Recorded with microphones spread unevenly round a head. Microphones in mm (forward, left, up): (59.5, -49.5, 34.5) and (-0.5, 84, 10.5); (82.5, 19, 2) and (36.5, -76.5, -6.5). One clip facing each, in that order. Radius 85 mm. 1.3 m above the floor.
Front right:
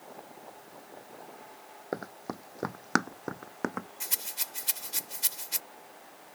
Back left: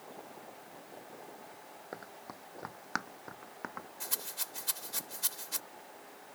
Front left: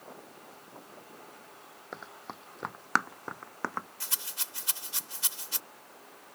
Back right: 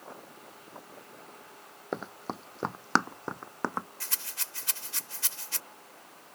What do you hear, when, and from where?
1.9 s running footsteps: 80° right; by 3.9 s 45° right
4.0 s a rattle: straight ahead